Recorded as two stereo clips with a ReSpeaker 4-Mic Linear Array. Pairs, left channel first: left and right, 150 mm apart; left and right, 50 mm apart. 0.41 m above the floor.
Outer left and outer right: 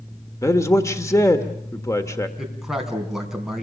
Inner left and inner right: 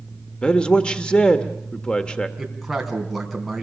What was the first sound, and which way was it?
A man speaking, 20° left (ahead or behind).